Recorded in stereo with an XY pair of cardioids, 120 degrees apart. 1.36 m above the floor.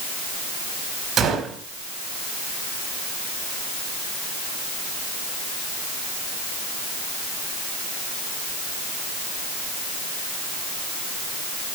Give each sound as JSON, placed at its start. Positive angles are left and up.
{"t": 1.2, "sound": "a gunshot", "azimuth_deg": -40, "distance_m": 5.0}